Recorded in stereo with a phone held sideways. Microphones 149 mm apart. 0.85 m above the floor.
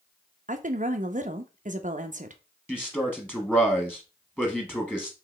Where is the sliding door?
I don't hear a sliding door.